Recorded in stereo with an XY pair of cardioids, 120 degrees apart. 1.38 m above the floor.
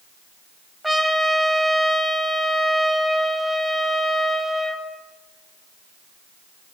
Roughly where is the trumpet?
Ahead.